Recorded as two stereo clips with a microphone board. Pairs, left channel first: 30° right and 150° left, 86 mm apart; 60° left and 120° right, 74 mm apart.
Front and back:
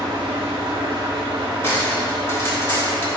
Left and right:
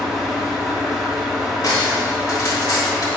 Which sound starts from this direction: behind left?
An engine running, at 0.0 s.